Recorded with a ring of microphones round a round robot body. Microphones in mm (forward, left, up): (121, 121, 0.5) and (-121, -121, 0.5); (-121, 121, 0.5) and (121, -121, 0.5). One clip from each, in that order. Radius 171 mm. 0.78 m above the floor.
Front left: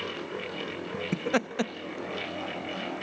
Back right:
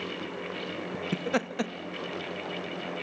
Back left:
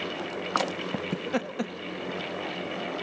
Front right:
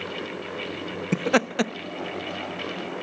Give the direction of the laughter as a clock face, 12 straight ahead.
1 o'clock.